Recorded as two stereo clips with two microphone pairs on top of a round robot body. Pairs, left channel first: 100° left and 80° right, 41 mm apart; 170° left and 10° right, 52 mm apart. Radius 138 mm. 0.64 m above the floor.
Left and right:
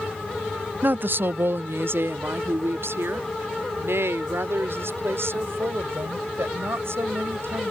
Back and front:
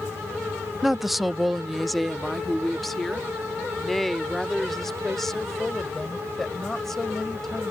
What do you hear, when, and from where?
0.8 s a woman speaking: 75° right; by 7.7 s 105° right